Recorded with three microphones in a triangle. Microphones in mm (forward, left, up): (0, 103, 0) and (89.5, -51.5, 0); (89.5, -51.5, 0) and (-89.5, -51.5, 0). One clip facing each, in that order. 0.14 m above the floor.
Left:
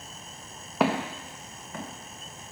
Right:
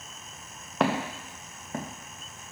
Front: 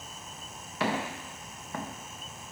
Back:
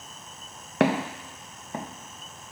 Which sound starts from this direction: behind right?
Footsteps, at 0.8 s.